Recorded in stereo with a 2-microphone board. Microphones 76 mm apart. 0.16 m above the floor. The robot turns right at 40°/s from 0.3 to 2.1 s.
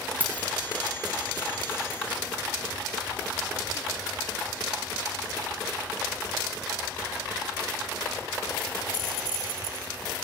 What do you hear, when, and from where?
0.2 s keys jangling: 20° right (ahead or behind), 0.7 m